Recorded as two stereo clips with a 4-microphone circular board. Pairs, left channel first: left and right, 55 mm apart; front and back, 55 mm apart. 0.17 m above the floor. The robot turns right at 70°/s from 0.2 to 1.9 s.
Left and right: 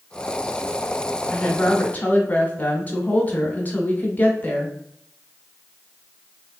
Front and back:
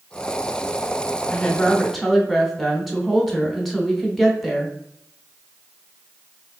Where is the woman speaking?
50° left, 1.1 m; by 4.7 s 95° left, 1.1 m.